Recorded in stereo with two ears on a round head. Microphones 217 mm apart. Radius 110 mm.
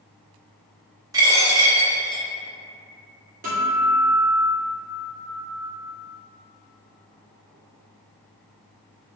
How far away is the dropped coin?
About 0.5 m.